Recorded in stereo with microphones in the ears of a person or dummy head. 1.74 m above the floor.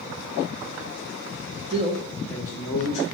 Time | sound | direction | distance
1.7 | a man speaking | 35° right (ahead or behind) | 0.6 m